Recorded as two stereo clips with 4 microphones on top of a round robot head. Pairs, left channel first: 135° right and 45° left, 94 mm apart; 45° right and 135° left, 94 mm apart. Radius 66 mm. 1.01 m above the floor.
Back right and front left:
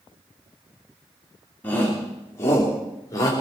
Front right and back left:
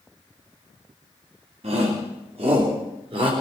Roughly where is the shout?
Behind left.